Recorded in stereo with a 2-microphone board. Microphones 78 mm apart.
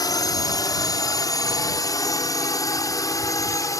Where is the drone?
50° left (ahead or behind); by 3.8 s 40° left (ahead or behind).